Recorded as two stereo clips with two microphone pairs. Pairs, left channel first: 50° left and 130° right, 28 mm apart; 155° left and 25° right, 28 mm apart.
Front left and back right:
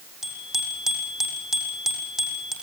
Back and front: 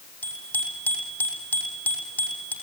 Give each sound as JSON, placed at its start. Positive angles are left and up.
{"t": 0.2, "sound": "a bicycle bell", "azimuth_deg": 155, "distance_m": 7.5}